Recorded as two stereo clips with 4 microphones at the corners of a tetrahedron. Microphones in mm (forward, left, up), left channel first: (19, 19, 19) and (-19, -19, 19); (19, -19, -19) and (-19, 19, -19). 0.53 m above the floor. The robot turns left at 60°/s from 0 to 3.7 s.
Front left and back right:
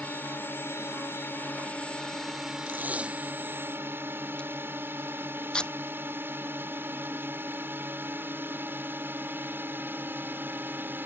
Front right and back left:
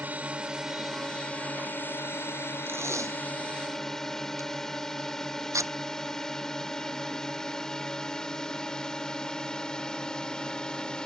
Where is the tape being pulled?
Straight behind; by 5.7 s 115° left.